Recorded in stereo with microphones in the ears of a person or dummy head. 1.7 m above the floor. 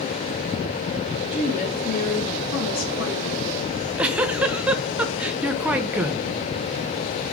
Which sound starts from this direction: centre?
A giggle, at 3.7 s.